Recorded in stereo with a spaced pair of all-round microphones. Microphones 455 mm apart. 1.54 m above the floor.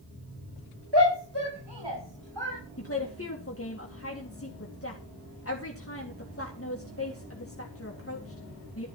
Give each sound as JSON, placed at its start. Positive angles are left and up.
{"t": 0.9, "sound": "a shout", "side_deg": -80, "distance_m": 5.5}
{"t": 2.8, "sound": "a woman speaking", "side_deg": 30, "distance_m": 1.9}